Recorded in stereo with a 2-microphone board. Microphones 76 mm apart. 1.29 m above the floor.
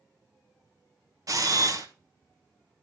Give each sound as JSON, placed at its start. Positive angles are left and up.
{"t": 1.3, "sound": "a camera shutter", "side_deg": -45, "distance_m": 0.8}